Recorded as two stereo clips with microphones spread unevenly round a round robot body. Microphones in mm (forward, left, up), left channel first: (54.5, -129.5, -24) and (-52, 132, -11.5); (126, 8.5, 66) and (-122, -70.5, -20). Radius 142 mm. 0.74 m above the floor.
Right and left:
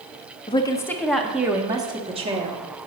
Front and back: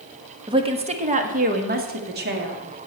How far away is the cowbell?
No cowbell in this recording.